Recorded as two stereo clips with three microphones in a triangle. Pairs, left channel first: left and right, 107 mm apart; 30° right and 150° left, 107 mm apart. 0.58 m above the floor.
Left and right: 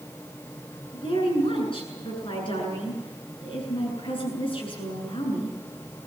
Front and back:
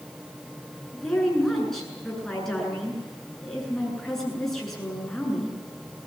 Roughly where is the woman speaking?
Ahead left.